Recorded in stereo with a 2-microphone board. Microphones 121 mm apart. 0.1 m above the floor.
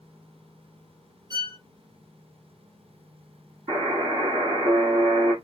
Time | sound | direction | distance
1.3 | a violin | 35° right (ahead or behind) | 1.2 m
3.7 | a buzzer | 45° right (ahead or behind) | 1.8 m